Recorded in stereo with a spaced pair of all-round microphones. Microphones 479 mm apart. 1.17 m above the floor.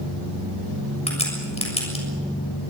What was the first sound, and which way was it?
A crack, 15° left (ahead or behind).